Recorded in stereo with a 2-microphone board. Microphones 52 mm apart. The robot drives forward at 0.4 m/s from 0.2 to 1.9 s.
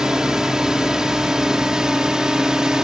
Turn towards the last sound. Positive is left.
turn(degrees=-15)  # may be behind; listen again after turning